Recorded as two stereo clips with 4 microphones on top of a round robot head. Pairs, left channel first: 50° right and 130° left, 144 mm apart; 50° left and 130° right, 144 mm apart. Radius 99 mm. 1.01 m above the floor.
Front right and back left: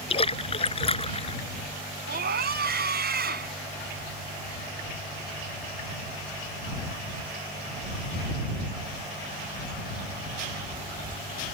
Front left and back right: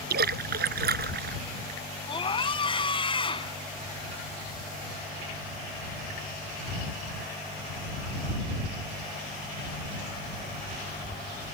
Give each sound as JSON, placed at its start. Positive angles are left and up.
{"t": 0.1, "sound": "a splash", "azimuth_deg": -105}
{"t": 2.1, "sound": "a scream", "azimuth_deg": 110}